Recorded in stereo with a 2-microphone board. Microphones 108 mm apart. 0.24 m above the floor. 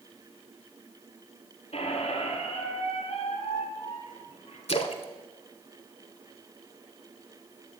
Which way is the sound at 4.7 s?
70° left (ahead or behind).